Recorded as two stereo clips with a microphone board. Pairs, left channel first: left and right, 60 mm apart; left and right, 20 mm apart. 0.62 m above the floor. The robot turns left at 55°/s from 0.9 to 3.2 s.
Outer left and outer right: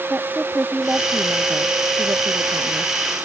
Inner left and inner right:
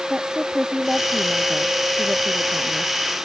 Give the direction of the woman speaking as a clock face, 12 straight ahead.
1 o'clock.